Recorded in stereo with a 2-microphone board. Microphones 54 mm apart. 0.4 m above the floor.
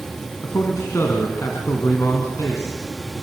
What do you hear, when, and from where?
0.4 s a man speaking: 60° left (ahead or behind), 3.5 m